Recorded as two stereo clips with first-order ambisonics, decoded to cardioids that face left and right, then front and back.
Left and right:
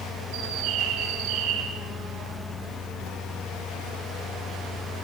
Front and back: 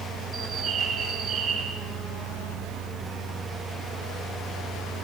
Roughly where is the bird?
Right.